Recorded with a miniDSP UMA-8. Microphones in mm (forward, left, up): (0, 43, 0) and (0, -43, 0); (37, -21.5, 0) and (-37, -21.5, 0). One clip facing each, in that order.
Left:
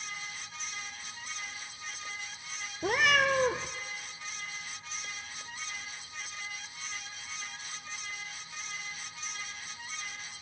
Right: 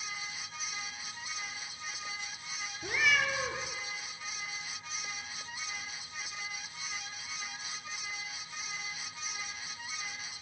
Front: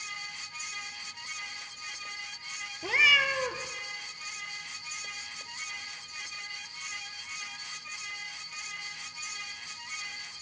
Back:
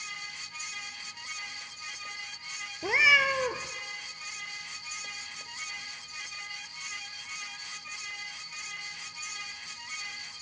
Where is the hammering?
I don't hear hammering.